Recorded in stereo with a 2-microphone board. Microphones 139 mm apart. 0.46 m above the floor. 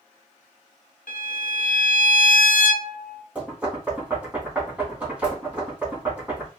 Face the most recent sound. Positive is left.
turn(degrees=-10)  # may be behind; listen again after turning